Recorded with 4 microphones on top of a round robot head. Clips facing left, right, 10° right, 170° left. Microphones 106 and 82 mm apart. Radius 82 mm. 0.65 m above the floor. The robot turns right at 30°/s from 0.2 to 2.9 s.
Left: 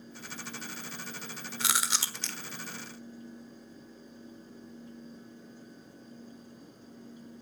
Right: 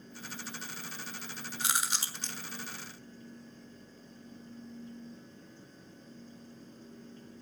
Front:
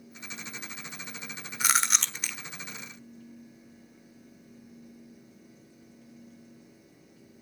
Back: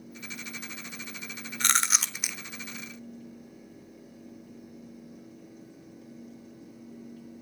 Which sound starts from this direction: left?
Chewing, at 1.6 s.